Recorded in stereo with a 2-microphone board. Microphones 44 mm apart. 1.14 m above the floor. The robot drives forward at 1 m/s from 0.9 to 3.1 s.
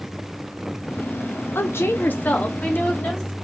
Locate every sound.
1.6 s a woman speaking: 55° left (ahead or behind), 0.5 m; by 3.3 s 15° left (ahead or behind), 1.4 m